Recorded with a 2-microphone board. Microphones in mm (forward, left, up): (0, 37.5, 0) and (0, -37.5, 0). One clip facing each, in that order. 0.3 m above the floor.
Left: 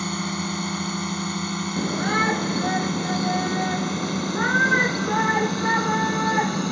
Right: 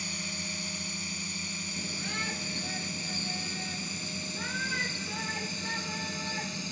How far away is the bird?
I don't hear a bird.